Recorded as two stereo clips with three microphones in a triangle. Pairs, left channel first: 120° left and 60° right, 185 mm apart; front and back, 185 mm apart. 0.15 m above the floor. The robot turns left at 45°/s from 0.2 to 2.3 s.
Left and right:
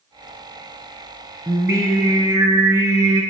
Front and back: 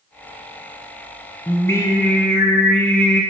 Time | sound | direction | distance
1.5 | singing | 25° right | 1.2 m